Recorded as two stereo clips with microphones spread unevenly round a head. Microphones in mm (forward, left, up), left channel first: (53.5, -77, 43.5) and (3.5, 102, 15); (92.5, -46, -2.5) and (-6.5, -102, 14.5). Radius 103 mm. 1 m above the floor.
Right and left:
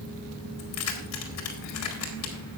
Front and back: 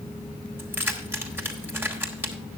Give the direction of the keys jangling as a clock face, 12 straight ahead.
3 o'clock.